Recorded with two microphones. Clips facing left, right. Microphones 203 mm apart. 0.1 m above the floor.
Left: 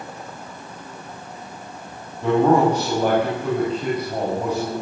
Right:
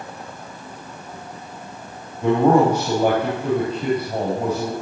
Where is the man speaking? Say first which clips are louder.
Right 1 dB; 10° right (ahead or behind), 4 m.